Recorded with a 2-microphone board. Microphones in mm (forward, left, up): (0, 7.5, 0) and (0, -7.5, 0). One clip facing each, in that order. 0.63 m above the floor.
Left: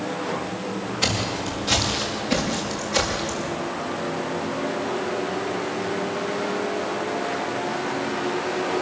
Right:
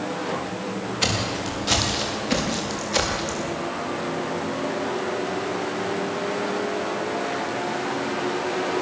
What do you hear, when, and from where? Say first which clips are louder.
1.0 s footsteps: even; 30° right (ahead or behind), 8.5 m; by 3.5 s 20° right (ahead or behind), 7.5 m